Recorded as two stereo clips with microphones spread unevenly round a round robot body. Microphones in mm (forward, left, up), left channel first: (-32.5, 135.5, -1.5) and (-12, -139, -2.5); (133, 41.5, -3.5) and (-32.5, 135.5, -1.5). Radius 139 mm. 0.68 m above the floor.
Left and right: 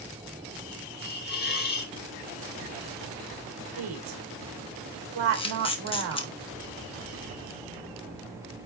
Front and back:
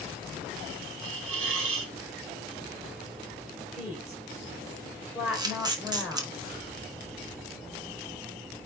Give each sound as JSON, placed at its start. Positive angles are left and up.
{"t": 1.0, "sound": "a hiss", "azimuth_deg": 150, "distance_m": 1.3}
{"t": 3.8, "sound": "a woman speaking", "azimuth_deg": -120, "distance_m": 2.5}
{"t": 5.3, "sound": "a camera shutter", "azimuth_deg": 125, "distance_m": 1.2}